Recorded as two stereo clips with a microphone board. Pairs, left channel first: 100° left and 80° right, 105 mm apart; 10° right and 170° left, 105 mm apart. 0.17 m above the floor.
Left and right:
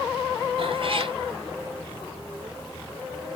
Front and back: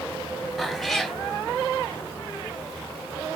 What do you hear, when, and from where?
0.6 s a cat meowing: 100° right, 0.6 m